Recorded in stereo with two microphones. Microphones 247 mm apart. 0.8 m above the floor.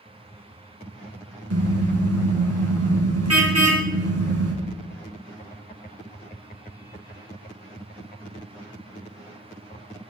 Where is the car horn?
75° right (ahead or behind), 4 m.